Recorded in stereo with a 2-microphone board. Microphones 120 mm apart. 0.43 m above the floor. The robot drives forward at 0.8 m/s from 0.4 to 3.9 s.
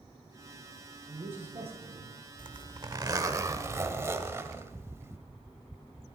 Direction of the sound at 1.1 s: 50° right (ahead or behind).